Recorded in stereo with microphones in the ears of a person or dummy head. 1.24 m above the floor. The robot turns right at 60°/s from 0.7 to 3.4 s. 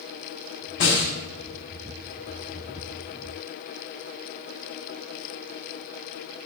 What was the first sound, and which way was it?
A snare drum, 70° left (ahead or behind).